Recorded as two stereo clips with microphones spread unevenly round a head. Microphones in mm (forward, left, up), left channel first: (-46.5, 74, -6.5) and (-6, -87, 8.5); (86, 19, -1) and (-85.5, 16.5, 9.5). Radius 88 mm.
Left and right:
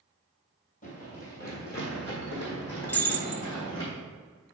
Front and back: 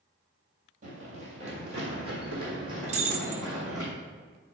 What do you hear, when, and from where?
0.8 s running footsteps: 145° left, 2.5 m; by 3.9 s 110° left, 4.5 m
2.9 s breaking glass: 175° right, 0.8 m